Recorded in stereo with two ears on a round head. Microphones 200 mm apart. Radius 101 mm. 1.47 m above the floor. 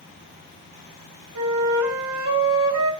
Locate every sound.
1.4 s a flute: 70° right (ahead or behind), 3 m